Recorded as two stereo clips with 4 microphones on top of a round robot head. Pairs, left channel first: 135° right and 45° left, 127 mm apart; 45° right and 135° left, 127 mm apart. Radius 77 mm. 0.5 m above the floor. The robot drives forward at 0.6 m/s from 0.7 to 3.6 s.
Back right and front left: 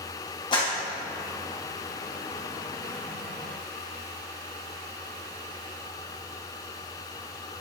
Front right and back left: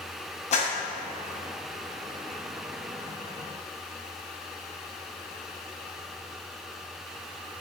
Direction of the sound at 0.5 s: 80° right.